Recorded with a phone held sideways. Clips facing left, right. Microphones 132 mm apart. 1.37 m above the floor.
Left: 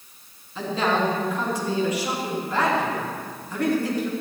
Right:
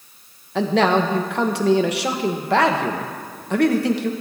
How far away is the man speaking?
About 1.3 m.